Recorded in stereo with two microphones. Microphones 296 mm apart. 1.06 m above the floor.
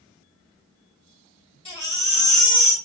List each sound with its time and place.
1.6 s a baby crying: 20° left (ahead or behind), 3 m